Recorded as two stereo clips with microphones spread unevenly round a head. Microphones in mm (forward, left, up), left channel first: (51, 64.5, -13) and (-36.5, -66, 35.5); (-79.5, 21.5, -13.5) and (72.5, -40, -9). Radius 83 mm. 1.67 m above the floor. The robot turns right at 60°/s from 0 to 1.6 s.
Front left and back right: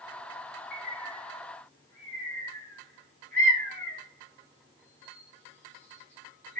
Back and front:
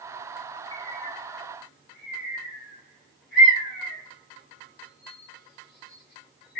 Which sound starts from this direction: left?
A bird, at 0.7 s.